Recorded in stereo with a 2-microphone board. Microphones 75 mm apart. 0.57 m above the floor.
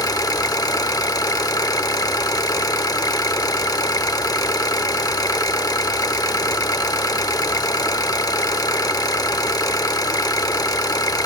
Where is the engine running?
55° left (ahead or behind), 0.7 m.